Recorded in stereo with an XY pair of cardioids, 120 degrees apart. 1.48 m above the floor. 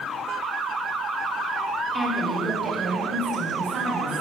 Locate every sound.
1.9 s a woman speaking: 10° right, 1.6 m; by 4.2 s 60° right, 4 m